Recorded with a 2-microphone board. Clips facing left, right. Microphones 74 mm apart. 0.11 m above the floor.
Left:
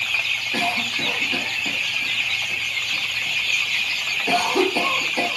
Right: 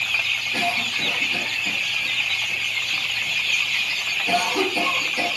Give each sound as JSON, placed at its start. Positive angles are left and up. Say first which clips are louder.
{"t": 0.5, "sound": "a cough", "louder": "left 1 dB", "side_deg": 45, "distance_m": 4.5}